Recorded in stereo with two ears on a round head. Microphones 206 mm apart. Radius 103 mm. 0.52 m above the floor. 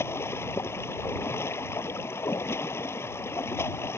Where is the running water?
10° left (ahead or behind).